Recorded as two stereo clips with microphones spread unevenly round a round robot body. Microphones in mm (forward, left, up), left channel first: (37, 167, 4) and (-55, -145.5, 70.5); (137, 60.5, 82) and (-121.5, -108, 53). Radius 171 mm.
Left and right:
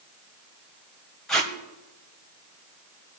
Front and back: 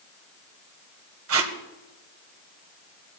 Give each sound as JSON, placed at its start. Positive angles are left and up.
{"t": 1.3, "sound": "tape being pulled", "azimuth_deg": 165, "distance_m": 1.5}